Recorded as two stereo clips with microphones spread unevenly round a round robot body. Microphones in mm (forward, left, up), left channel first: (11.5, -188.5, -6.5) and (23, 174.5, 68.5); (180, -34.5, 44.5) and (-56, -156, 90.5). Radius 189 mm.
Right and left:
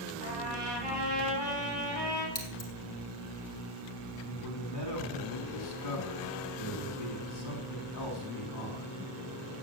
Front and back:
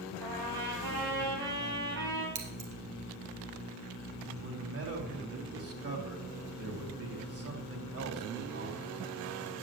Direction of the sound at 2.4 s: 160° right.